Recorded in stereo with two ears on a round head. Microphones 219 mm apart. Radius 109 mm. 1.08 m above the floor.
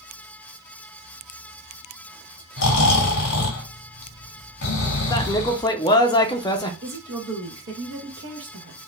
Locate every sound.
2.6 s snoring: 50° left (ahead or behind), 1.0 m
5.1 s a man speaking: 15° left (ahead or behind), 0.5 m
6.8 s a woman speaking: 50° right (ahead or behind), 1.0 m